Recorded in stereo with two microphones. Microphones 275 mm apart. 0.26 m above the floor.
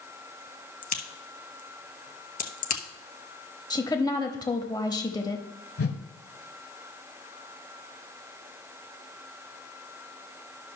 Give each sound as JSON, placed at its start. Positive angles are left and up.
{"t": 0.8, "sound": "a crack", "side_deg": 90, "distance_m": 1.1}
{"t": 3.7, "sound": "a woman speaking", "side_deg": 15, "distance_m": 0.9}
{"t": 5.8, "sound": "a whoosh", "side_deg": 55, "distance_m": 0.9}